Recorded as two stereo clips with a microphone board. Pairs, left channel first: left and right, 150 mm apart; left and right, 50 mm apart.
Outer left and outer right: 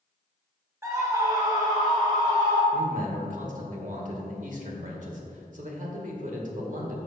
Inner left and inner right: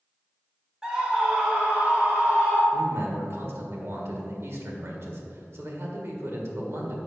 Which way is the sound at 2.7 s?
60° right (ahead or behind).